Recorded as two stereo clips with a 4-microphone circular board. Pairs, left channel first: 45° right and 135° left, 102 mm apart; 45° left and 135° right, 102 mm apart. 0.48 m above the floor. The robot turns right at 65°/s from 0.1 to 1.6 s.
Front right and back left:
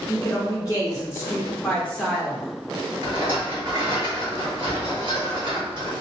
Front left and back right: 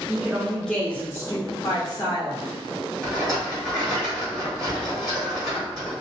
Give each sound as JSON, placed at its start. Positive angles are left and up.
{"t": 0.1, "sound": "a woman speaking", "azimuth_deg": -70, "distance_m": 0.9}
{"t": 3.0, "sound": "a rattle", "azimuth_deg": 140, "distance_m": 1.7}